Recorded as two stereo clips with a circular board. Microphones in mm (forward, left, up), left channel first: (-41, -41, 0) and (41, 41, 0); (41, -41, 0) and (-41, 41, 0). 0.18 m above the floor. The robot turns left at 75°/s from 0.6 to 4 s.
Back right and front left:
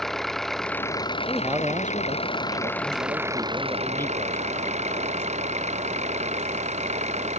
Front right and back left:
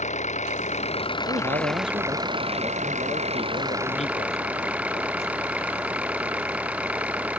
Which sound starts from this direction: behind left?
A man speaking, at 1.3 s.